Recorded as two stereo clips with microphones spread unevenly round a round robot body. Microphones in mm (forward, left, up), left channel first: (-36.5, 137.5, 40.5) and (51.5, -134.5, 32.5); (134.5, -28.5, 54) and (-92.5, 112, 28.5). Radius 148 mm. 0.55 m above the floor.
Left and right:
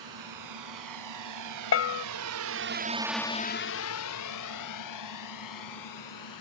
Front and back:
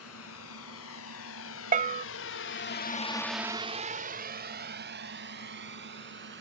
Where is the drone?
75° right; by 6.4 s 100° left.